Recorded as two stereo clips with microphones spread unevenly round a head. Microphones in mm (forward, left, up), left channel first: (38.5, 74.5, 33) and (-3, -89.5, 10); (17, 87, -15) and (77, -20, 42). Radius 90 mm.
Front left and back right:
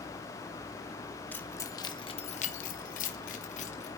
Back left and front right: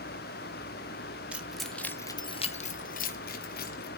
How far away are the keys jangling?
About 1.8 m.